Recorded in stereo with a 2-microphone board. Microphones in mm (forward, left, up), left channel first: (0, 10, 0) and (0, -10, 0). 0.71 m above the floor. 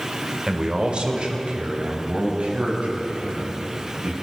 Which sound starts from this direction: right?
A man speaking, at 0.5 s.